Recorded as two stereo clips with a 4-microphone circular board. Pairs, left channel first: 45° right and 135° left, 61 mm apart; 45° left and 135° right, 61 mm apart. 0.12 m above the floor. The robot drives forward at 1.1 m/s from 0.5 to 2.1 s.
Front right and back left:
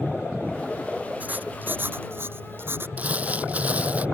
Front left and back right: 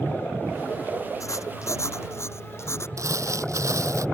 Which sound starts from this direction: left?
Writing, at 1.2 s.